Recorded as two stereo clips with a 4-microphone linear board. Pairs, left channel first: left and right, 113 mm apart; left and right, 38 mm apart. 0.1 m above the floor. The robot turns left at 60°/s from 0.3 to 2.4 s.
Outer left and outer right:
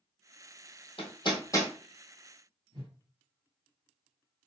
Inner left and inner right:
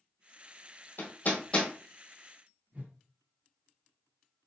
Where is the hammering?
55° left (ahead or behind), 1.2 m; by 1.7 s 20° left (ahead or behind), 1.2 m.